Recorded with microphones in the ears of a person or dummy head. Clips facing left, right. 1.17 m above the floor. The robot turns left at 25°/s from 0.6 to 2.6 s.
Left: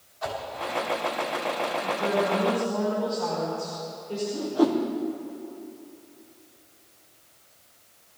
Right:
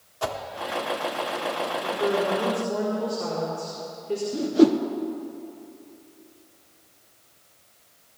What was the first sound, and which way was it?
A whoosh, 55° right (ahead or behind).